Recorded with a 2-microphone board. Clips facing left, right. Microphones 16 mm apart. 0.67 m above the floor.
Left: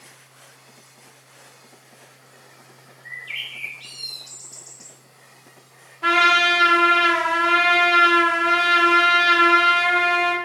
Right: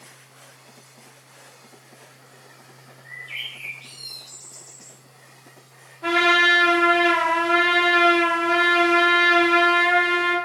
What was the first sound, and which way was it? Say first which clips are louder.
A bird: left 2 dB; 60° left (ahead or behind).